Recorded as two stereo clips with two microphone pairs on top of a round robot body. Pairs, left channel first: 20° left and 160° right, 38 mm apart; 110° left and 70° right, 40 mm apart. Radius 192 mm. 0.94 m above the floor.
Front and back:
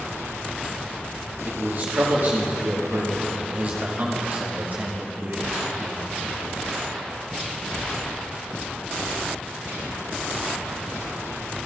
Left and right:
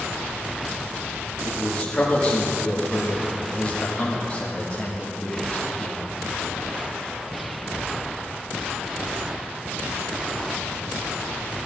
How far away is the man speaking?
About 3 m.